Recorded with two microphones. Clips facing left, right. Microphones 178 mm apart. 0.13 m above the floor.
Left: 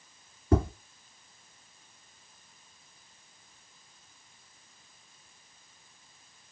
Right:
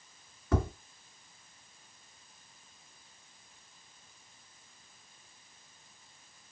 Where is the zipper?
I don't hear a zipper.